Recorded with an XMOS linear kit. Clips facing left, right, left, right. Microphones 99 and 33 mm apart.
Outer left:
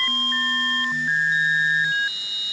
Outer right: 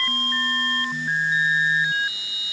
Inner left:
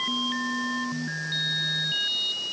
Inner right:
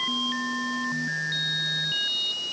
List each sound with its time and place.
Only background noise.